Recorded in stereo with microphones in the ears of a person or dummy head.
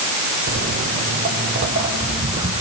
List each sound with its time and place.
0.5 s footsteps: 50° right (ahead or behind), 2 m; by 2.6 s 45° right (ahead or behind), 4.5 m